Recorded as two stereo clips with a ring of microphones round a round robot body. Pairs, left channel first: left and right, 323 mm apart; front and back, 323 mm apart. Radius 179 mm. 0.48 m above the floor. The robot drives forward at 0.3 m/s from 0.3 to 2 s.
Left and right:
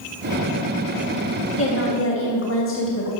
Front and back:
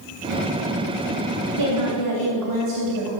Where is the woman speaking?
140° left, 3 m.